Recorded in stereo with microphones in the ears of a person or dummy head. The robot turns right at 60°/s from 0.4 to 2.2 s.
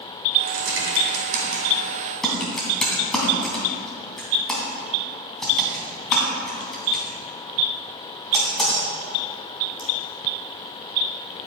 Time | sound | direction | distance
0.5 | typing on a keyboard | 70° right (ahead or behind) | 3 m